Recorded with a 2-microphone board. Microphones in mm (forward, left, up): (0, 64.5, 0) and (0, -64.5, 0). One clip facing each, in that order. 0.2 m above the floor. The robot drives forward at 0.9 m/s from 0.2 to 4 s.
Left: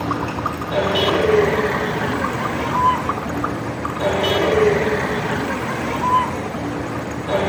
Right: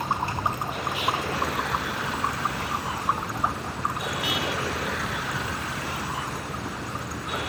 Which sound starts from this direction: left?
A vehicle, at 0.0 s.